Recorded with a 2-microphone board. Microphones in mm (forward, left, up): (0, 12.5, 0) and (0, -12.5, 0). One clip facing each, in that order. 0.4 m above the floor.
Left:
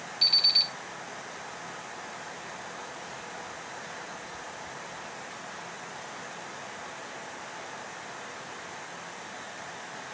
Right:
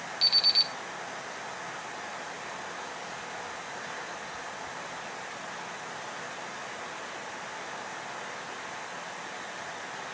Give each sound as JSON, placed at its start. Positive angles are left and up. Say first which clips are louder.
{"t": 0.2, "sound": "an alarm clock", "louder": "left 1 dB", "side_deg": -25, "distance_m": 1.1}